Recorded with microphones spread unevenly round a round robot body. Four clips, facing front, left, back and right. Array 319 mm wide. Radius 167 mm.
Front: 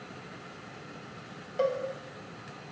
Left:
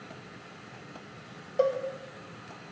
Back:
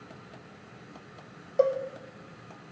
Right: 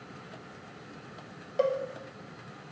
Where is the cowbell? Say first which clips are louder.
Left 1 dB, back 4 dB; 160° left, 1.0 m.